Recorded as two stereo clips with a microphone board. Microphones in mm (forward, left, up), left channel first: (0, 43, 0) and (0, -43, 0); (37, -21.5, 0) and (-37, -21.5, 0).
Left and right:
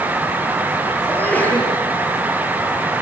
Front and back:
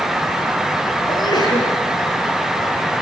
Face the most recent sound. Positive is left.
turn(degrees=20)